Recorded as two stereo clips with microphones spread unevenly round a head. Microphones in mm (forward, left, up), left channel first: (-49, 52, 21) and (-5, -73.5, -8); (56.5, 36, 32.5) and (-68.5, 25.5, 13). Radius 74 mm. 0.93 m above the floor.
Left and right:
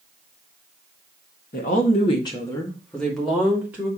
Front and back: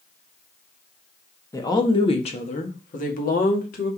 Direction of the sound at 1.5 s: 70° left.